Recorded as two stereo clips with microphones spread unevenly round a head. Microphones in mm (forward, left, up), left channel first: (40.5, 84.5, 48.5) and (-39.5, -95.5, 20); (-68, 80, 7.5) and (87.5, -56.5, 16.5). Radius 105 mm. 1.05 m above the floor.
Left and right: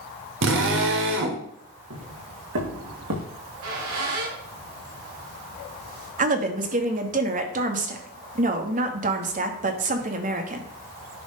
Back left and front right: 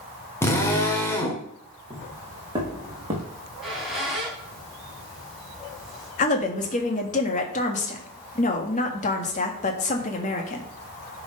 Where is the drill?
140° right, 1.9 m.